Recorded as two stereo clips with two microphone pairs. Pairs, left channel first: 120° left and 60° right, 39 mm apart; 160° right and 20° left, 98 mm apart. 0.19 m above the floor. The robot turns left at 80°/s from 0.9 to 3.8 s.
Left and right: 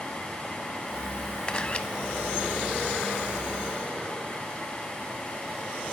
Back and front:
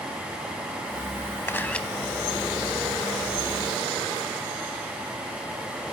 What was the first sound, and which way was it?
A camera shutter, 155° left.